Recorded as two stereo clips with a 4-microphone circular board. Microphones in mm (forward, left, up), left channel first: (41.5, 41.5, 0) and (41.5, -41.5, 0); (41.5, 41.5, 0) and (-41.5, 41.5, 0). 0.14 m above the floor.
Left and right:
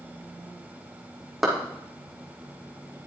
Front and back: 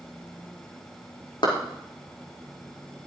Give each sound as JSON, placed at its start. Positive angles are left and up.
{"t": 1.4, "sound": "a clap", "azimuth_deg": -5, "distance_m": 5.0}